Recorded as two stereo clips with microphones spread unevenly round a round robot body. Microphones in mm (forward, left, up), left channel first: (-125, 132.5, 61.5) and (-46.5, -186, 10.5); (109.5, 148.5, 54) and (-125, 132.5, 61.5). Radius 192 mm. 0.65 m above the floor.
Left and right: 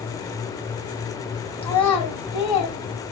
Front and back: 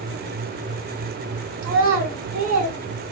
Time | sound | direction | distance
1.6 | a child speaking | straight behind | 2.5 m